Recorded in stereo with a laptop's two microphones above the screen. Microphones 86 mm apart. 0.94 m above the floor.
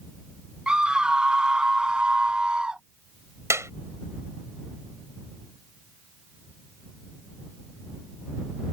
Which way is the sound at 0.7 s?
10° right (ahead or behind).